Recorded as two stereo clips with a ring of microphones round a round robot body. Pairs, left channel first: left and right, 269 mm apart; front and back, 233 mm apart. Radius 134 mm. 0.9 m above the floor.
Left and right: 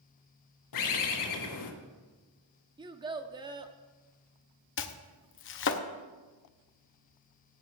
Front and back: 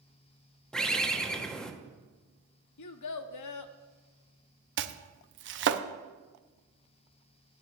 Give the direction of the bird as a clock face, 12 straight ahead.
9 o'clock.